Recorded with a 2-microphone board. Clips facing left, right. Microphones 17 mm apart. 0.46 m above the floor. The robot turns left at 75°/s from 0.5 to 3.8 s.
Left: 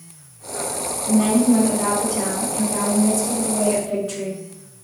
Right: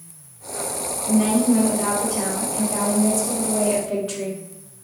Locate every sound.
1.1 s a woman speaking: centre (ahead or behind), 0.7 m; by 4.4 s 10° right (ahead or behind), 0.7 m